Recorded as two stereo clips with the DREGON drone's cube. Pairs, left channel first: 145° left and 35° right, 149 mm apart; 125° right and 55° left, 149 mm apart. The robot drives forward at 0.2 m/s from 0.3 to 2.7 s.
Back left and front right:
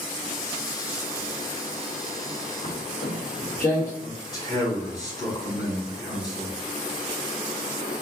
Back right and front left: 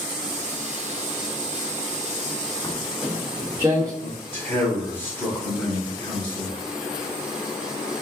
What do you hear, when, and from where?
2.6 s footsteps: 170° left, 1.3 m; by 3.9 s 120° left, 2 m
4.0 s a man speaking: 170° left, 1.6 m